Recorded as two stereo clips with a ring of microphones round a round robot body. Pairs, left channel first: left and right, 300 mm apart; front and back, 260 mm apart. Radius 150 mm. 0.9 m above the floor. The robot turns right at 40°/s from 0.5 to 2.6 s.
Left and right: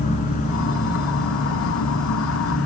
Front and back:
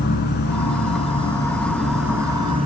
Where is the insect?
35° left, 1.2 m; by 2.7 s 120° left, 1.2 m.